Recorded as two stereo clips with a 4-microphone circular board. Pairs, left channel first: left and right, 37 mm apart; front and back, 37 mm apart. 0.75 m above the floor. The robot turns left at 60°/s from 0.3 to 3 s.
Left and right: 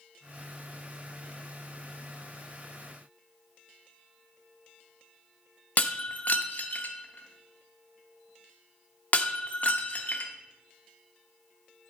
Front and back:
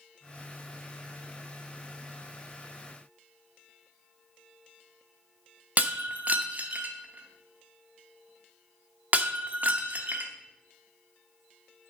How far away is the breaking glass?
About 0.8 m.